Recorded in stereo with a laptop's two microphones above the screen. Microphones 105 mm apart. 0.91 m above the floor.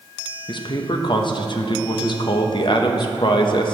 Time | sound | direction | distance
0.5 | a man speaking | 50° left (ahead or behind) | 0.6 m